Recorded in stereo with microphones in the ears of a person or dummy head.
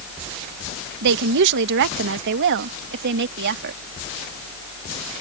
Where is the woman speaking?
55° right (ahead or behind); by 3.8 s 60° right (ahead or behind).